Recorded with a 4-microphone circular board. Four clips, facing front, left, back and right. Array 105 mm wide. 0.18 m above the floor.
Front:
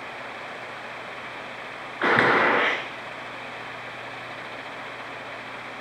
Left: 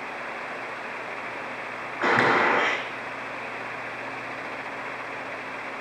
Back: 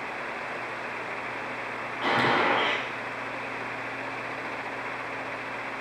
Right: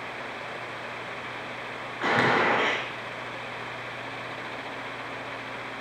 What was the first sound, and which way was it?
A gunshot, 25° left.